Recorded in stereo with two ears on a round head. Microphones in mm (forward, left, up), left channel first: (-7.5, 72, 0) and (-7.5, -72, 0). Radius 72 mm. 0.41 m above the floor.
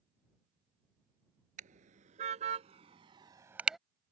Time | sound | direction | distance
1.6 | a car horn | 50° right (ahead or behind) | ?